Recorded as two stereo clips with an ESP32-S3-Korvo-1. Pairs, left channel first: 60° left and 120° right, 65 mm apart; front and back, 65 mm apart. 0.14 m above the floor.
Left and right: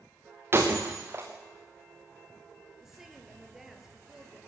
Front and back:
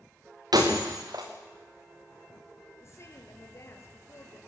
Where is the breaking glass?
170° right, 3 m.